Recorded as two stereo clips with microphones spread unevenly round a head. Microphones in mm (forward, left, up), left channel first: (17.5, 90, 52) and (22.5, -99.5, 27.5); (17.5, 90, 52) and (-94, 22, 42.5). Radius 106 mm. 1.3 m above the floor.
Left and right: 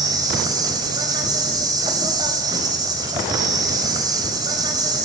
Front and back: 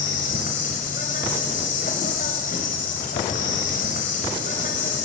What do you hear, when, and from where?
0.0 s an insect: 15° right, 4 m